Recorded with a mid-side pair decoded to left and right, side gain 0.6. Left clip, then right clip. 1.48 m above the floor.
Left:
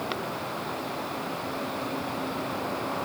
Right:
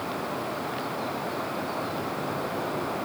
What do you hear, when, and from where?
Only background noise.